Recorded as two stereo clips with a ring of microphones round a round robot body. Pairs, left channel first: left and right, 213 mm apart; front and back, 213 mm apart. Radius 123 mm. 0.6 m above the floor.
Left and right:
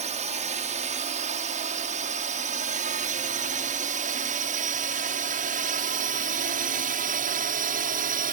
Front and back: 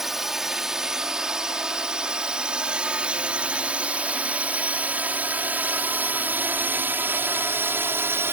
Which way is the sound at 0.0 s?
95° right.